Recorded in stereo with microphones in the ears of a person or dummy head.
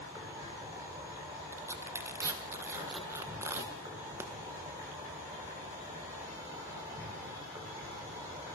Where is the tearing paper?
15° right (ahead or behind), 1.3 m.